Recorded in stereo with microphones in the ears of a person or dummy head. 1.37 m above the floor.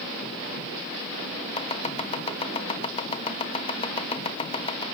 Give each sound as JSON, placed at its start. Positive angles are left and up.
{"t": 1.6, "sound": "chopping", "side_deg": 25, "distance_m": 1.4}